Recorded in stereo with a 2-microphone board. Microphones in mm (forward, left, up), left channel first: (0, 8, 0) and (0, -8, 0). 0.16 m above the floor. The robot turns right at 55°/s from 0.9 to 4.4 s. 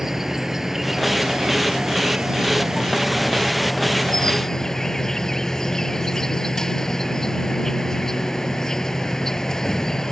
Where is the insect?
155° right; by 10.1 s 35° left.